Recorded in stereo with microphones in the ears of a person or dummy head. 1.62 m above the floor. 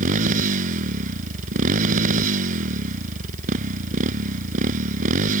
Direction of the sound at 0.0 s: 50° right (ahead or behind).